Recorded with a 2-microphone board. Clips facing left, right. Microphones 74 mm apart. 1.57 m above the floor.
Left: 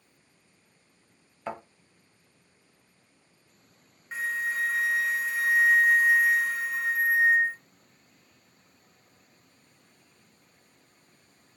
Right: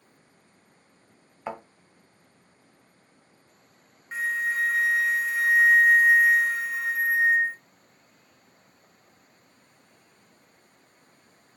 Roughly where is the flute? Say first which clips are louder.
Right 3 dB; centre.